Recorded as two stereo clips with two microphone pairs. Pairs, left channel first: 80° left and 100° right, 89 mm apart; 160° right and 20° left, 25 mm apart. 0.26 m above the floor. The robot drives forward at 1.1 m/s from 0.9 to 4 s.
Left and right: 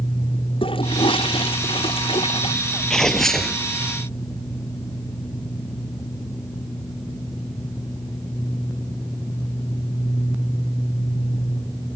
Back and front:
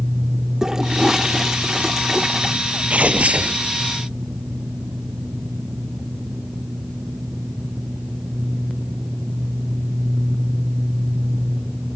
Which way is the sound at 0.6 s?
80° left.